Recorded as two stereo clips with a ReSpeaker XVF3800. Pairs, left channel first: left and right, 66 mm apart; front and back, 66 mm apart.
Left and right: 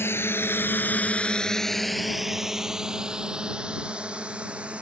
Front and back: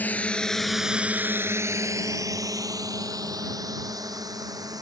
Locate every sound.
0.0 s a drone: 55° left; by 4.8 s 160° right